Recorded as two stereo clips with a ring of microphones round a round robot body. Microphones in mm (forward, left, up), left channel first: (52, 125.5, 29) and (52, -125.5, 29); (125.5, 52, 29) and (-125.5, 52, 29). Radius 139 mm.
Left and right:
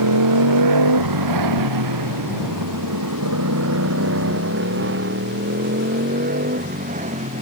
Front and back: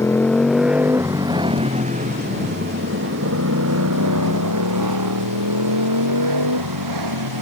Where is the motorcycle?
85° right; by 7.4 s 160° right.